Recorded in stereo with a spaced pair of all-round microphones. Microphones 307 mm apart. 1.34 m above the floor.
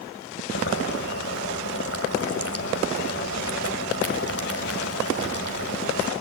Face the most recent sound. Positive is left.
turn(degrees=50)  # may be behind; listen again after turning